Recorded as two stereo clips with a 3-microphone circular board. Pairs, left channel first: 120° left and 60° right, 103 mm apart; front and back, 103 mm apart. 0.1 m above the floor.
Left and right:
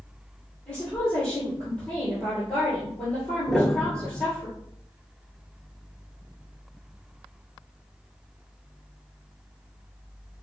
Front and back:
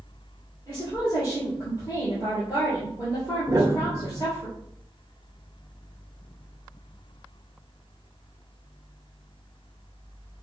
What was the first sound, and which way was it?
A woman speaking, 45° left.